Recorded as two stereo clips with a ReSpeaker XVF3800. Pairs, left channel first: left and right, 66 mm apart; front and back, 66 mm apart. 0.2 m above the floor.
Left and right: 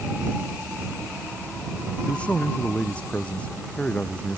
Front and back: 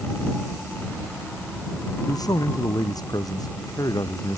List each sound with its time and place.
2.1 s a man speaking: 15° left